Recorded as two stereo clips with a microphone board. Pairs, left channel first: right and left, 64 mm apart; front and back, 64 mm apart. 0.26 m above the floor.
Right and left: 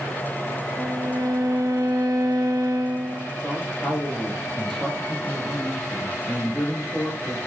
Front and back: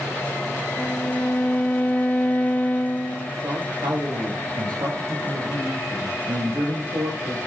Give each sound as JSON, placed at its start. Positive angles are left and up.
{"t": 0.8, "sound": "a violin", "azimuth_deg": 65, "distance_m": 3.5}
{"t": 3.4, "sound": "a man speaking", "azimuth_deg": -170, "distance_m": 9.0}